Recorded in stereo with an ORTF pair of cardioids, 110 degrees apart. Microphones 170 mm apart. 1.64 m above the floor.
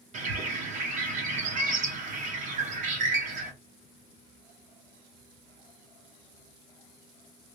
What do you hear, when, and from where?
0.1 s a bird: 50° right, 1.5 m